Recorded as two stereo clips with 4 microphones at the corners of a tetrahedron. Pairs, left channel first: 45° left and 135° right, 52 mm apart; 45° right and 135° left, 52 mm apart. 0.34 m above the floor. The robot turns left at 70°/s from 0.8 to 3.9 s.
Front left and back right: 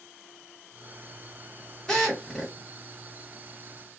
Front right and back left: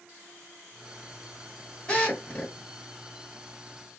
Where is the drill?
15° right, 1.2 m; by 2.5 s 60° right, 1.2 m.